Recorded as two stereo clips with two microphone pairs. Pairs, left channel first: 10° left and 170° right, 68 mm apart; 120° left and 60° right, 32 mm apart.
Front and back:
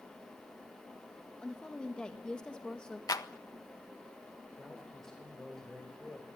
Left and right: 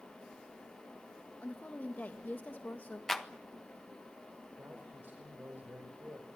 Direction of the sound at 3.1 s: 35° left.